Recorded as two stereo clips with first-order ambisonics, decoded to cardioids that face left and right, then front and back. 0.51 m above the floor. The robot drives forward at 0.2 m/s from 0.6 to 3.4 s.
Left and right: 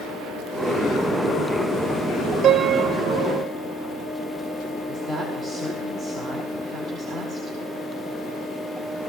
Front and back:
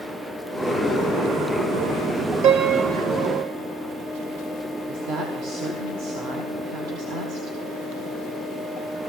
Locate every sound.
2.4 s a piano: 145° right, 0.6 m; by 3.5 s 155° right, 0.7 m
4.9 s a woman speaking: 165° right, 1.5 m